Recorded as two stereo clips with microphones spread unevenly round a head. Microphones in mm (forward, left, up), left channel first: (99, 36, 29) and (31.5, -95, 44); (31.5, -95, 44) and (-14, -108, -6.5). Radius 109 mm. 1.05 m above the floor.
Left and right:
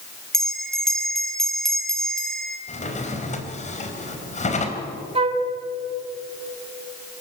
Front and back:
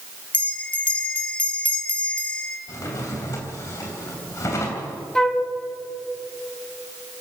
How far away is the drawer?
About 3 m.